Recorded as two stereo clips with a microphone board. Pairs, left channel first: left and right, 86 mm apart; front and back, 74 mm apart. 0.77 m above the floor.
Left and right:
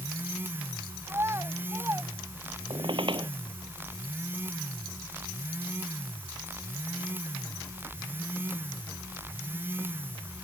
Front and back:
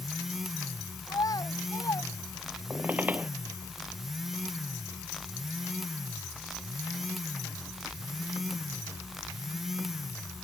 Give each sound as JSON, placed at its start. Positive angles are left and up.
{"t": 1.1, "sound": "a child speaking", "azimuth_deg": -30}
{"t": 2.7, "sound": "a squeak", "azimuth_deg": -110}